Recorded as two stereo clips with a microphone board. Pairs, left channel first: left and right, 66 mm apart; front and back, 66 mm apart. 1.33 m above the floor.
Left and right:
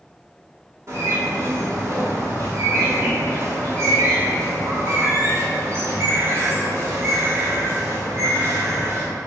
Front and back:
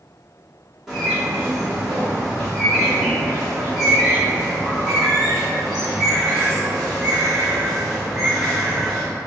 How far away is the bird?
About 1.0 m.